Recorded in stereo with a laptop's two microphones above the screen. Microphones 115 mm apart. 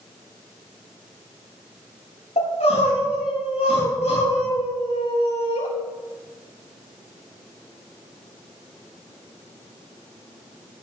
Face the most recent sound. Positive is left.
turn(degrees=75)  # may be behind; listen again after turning